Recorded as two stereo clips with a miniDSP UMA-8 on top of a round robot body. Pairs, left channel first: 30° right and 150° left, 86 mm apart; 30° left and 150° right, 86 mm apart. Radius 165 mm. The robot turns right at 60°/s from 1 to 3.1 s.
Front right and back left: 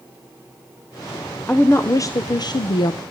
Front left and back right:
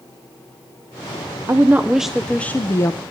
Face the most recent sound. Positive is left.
turn(degrees=-5)